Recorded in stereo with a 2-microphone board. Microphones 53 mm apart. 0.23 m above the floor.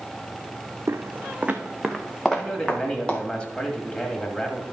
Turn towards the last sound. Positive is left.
turn(degrees=20)  # may be behind; listen again after turning